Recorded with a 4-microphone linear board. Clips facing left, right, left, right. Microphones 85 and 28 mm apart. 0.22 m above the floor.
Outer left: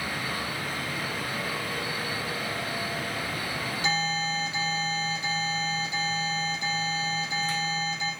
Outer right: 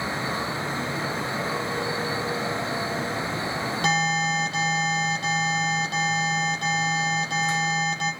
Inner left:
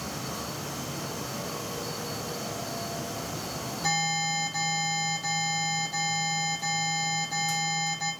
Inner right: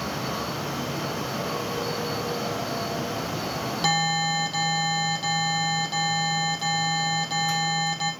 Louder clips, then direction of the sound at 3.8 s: Outer right 5 dB, inner right 4 dB; 60° right (ahead or behind).